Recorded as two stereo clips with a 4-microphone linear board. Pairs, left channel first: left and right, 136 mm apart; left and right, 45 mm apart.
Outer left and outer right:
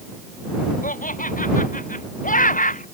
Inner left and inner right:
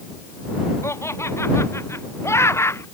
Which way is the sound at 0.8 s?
85° left.